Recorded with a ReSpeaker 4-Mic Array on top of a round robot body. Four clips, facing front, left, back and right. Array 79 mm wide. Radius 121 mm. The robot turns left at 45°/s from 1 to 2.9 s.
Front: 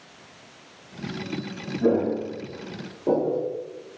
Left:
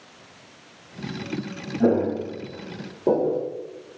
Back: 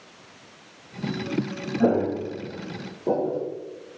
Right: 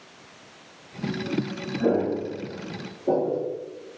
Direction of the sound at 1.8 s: 155° left.